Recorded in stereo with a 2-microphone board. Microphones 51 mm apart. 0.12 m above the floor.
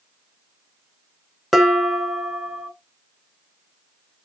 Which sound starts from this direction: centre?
Dishes clattering, at 1.5 s.